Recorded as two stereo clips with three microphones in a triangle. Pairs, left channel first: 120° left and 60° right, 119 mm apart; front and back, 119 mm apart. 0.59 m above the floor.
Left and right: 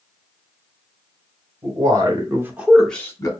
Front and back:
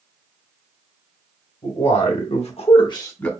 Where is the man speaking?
10° right, 1.9 m; by 3.3 s 75° left, 0.9 m.